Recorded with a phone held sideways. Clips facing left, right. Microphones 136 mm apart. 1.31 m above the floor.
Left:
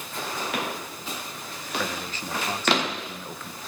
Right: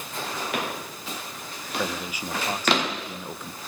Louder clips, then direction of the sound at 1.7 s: Right 1 dB; 10° right (ahead or behind).